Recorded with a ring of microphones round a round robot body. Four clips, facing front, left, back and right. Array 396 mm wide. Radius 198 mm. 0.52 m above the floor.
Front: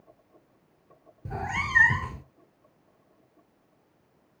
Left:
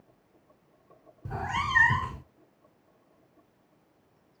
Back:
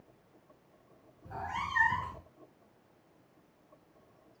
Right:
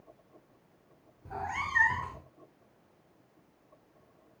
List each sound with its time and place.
1.2 s a cat meowing: 35° left, 0.7 m